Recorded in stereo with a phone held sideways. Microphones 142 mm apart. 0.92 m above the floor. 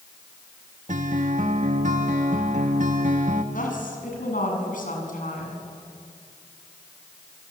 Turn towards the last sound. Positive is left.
turn(degrees=70)  # may be behind; listen again after turning